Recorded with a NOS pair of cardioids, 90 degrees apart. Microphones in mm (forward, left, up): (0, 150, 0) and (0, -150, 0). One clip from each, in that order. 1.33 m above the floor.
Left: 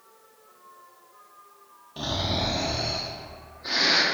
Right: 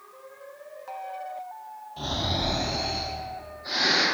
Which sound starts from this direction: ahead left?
Snoring, at 2.0 s.